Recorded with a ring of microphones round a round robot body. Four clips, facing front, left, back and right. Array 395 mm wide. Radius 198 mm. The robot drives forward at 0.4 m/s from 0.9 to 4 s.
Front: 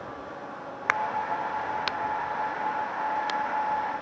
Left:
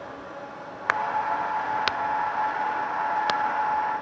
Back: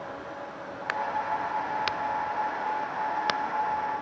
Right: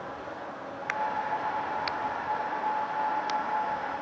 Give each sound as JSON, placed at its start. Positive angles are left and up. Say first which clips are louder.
{"t": 0.9, "sound": "a crack", "louder": "left 5 dB, front 2 dB", "azimuth_deg": 60}